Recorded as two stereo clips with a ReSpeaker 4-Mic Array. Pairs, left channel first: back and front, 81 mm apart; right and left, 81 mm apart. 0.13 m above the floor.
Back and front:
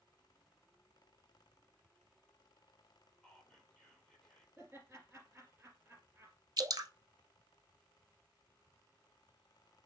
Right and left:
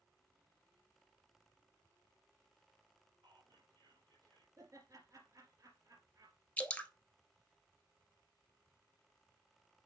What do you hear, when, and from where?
3.2 s whispering: 95° left, 4 m
4.6 s laughter: 60° left, 2 m
6.6 s dripping: 20° right, 0.8 m